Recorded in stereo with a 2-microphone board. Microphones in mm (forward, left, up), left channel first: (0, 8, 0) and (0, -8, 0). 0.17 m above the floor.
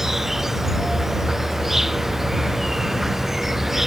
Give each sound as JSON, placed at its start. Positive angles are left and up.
{"t": 0.0, "sound": "an insect", "side_deg": -20}